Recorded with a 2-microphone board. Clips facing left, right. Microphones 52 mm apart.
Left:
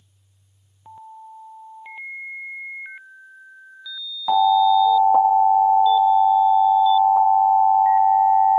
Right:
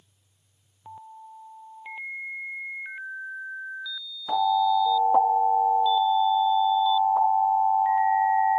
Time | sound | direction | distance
4.3 | an alarm | 70° left (ahead or behind) | 3.5 m